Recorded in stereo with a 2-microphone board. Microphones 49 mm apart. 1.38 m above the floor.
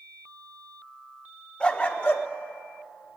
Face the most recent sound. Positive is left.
turn(degrees=65)  # may be behind; listen again after turning